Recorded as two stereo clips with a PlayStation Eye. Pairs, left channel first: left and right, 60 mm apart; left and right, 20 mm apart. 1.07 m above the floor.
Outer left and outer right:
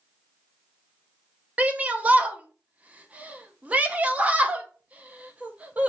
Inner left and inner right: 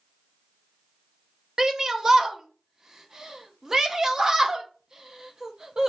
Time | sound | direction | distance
1.6 | a shout | 25° right (ahead or behind) | 0.7 m